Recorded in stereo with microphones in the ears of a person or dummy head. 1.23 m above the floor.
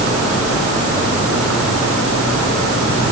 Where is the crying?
I don't hear crying.